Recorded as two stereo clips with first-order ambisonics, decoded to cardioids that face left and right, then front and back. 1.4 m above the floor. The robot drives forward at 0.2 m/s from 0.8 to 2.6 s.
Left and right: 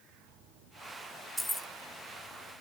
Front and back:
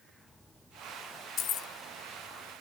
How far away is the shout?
I don't hear a shout.